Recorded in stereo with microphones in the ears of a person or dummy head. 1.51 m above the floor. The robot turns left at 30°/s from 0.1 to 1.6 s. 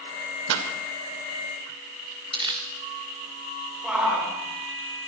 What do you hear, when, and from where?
0.5 s a pop: 70° right (ahead or behind), 2.5 m
2.3 s crumpling: 25° right (ahead or behind), 2.5 m
3.8 s a shout: 5° right (ahead or behind), 8.5 m